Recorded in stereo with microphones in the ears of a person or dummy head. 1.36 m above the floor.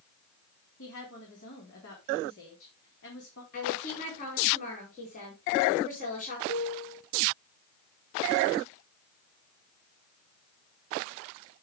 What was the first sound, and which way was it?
A woman speaking, 60° left (ahead or behind).